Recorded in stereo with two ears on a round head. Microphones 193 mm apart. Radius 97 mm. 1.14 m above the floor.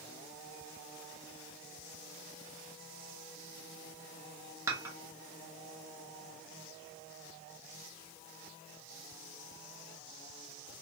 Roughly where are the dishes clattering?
Centre.